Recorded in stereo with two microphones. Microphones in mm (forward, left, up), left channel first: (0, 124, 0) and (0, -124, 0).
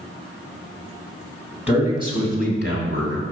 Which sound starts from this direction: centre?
A man speaking, at 1.7 s.